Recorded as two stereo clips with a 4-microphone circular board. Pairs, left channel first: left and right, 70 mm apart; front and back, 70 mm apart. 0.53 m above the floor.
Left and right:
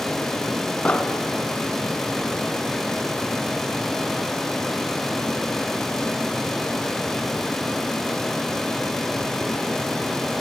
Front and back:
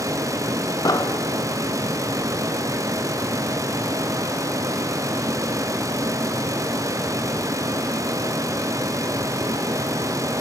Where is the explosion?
20° left, 1.1 m.